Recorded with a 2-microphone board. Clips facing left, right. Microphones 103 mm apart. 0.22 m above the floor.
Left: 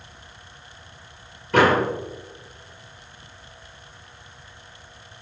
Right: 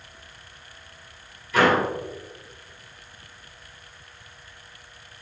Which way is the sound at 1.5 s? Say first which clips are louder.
Left 2 dB; 60° left (ahead or behind).